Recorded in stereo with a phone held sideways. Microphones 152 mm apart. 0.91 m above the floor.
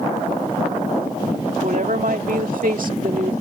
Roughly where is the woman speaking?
Right.